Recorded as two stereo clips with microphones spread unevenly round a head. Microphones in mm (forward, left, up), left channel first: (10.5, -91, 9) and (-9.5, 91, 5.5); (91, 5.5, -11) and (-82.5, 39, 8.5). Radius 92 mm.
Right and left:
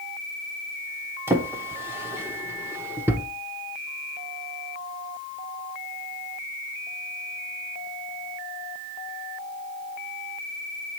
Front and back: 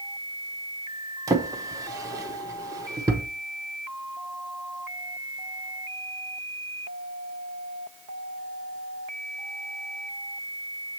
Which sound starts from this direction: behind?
A drawer, at 1.3 s.